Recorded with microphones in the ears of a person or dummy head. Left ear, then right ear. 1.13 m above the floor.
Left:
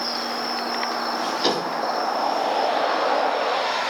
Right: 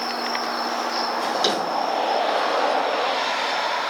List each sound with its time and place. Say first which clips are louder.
1.2 s a drawer: even; 45° right (ahead or behind), 7 m